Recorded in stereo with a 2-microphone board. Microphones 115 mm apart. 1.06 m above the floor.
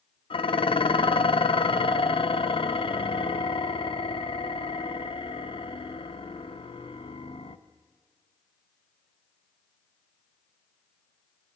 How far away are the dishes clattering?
About 0.5 m.